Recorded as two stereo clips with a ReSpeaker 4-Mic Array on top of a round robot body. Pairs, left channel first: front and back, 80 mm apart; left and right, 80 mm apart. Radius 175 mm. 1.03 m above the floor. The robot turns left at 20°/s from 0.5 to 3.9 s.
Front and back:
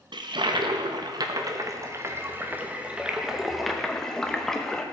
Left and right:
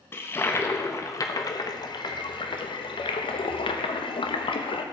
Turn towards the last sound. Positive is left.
turn(degrees=85)